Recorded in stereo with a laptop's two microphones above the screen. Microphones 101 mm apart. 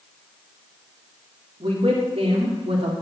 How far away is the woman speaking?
About 2.5 m.